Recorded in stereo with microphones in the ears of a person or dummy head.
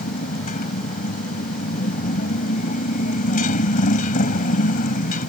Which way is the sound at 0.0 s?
45° left (ahead or behind).